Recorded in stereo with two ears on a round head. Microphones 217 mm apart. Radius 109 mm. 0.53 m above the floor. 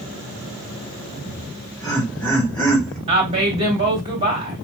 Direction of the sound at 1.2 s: 5° left (ahead or behind).